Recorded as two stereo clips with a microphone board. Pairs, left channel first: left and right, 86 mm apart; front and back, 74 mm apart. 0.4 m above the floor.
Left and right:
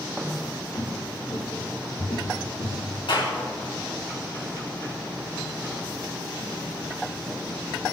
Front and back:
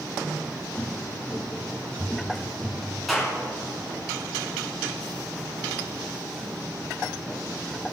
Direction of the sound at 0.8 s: 70° left.